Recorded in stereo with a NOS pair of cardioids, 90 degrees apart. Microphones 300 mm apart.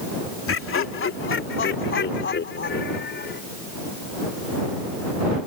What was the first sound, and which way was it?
Laughter, 45° left.